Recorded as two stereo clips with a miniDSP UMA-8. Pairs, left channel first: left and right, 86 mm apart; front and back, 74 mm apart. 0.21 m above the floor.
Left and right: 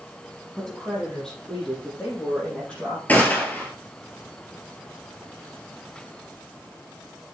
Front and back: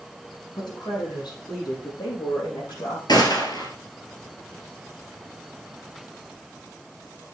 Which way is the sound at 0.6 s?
5° left.